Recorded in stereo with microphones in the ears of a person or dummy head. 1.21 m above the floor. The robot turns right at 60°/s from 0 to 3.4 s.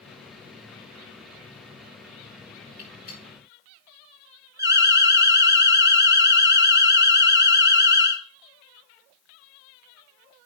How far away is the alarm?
About 0.7 m.